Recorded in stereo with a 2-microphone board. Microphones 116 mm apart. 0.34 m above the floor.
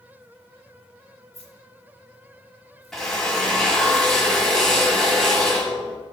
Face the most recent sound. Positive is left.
turn(degrees=5)  # may be behind; listen again after turning